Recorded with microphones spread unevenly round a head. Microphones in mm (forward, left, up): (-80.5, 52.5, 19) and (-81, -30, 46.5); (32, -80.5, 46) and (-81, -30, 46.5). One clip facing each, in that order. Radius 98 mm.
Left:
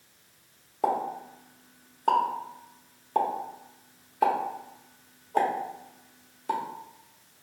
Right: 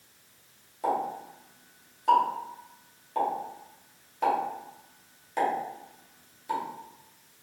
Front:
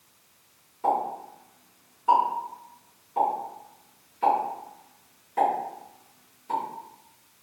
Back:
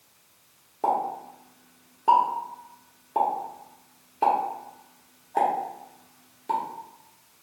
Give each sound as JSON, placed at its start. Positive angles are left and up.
{"t": 0.8, "sound": "a pop", "azimuth_deg": 130, "distance_m": 0.9}